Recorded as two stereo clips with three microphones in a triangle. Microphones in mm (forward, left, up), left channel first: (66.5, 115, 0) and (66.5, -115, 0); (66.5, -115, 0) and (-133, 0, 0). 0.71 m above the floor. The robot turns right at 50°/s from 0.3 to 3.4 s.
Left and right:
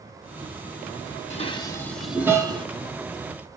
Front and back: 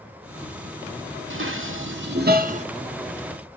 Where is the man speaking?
No man speaking in this recording.